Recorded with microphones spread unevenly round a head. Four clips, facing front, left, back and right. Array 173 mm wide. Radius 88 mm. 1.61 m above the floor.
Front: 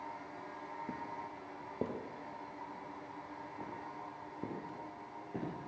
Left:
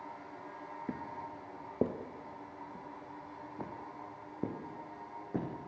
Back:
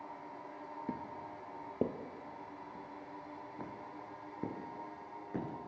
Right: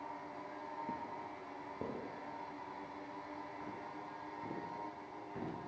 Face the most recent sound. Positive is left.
turn(degrees=110)